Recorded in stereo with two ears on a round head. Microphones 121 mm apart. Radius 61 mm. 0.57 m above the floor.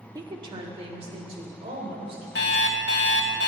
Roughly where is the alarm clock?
Left.